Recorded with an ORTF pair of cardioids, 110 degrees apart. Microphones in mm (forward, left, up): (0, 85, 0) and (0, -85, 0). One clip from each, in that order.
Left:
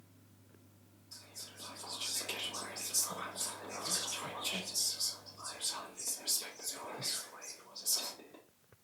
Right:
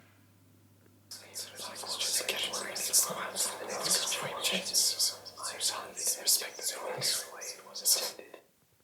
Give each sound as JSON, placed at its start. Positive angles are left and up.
{"t": 1.1, "sound": "whispering", "azimuth_deg": -65, "distance_m": 0.8}